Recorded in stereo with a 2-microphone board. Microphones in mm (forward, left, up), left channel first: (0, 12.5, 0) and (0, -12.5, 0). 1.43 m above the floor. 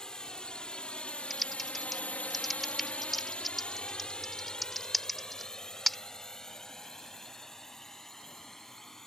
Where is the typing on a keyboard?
5° left (ahead or behind).